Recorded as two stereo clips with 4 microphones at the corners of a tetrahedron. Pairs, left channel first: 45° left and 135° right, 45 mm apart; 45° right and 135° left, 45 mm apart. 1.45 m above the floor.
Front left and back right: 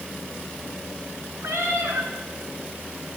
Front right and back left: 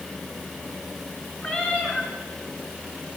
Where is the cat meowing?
110° right, 5.5 m.